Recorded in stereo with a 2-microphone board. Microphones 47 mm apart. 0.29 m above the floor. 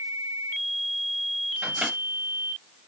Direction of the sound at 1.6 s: 30° right (ahead or behind).